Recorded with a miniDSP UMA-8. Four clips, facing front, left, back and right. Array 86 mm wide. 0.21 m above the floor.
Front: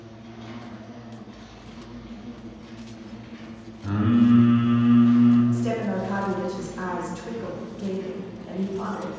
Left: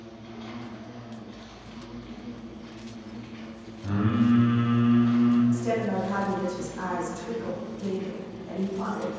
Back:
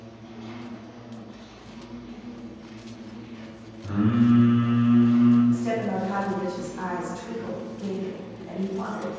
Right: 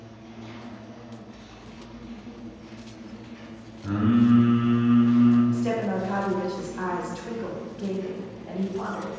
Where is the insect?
75° left, 1.2 m.